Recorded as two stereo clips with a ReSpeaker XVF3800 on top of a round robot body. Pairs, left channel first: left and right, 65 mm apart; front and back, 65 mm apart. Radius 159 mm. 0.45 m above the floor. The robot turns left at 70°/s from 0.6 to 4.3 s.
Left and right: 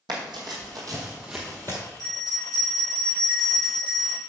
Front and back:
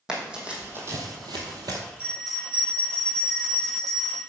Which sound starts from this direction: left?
A bell, at 2.0 s.